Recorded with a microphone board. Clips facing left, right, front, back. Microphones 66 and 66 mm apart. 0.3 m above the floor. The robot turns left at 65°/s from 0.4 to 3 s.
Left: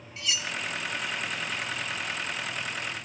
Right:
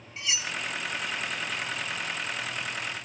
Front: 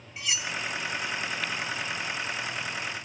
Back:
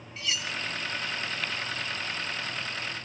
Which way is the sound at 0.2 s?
60° right.